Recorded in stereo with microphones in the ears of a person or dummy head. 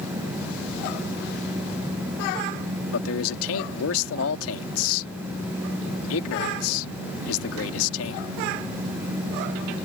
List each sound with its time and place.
2.9 s a man speaking: 85° left